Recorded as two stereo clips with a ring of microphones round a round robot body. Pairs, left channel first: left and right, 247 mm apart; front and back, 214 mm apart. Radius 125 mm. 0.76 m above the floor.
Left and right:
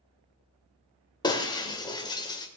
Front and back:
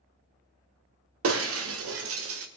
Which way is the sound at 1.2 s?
165° left.